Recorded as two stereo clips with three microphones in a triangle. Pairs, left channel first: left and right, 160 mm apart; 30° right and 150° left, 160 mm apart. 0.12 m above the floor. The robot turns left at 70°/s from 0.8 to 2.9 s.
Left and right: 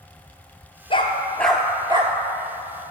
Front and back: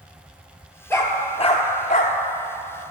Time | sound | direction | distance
0.9 | a dog barking | 45° left | 1.1 m